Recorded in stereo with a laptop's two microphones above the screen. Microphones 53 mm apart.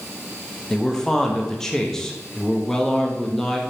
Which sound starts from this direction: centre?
A man speaking, at 0.7 s.